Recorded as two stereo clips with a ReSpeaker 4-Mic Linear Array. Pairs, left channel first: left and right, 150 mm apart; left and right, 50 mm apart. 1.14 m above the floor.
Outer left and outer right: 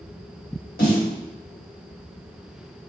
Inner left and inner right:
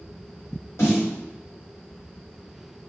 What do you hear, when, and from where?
0.8 s a snare drum: 75° left (ahead or behind), 1.2 m